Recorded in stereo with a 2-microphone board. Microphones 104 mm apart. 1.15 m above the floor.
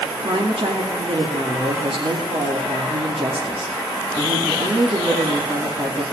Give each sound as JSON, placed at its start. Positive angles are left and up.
{"t": 0.2, "sound": "a woman speaking", "side_deg": -65, "distance_m": 2.5}